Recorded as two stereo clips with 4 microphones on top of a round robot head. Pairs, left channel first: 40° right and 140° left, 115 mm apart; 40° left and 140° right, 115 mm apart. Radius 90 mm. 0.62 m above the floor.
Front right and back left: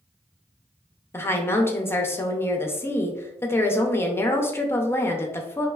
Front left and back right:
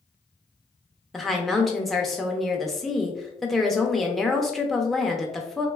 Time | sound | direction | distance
1.1 | a woman speaking | 40° right | 0.6 m